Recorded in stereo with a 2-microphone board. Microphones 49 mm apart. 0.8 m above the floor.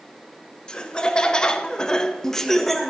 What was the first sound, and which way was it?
Laughter, 20° left (ahead or behind).